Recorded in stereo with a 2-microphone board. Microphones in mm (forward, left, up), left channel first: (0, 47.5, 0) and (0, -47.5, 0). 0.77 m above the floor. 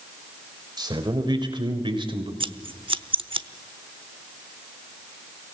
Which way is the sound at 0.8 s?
50° right (ahead or behind).